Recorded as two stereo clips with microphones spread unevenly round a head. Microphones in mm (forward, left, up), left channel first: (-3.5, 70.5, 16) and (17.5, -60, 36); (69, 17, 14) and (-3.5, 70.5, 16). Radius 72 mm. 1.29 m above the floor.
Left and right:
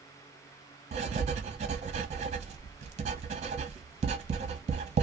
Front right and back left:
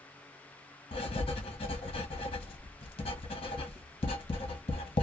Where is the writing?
60° right, 0.7 m.